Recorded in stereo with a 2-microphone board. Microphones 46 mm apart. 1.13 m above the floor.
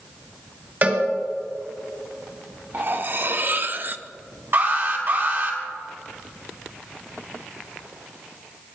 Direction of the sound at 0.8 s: 45° right (ahead or behind).